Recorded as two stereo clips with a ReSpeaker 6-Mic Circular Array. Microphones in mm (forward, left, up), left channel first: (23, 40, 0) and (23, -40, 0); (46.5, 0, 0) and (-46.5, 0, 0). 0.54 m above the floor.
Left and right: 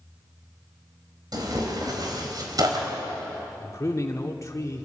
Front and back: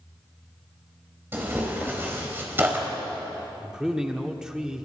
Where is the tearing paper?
115° right, 3.5 m.